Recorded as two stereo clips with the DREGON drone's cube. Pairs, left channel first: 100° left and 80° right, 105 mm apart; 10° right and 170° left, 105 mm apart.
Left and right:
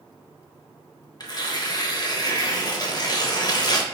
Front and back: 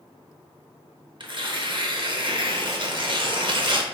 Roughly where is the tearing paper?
Behind left.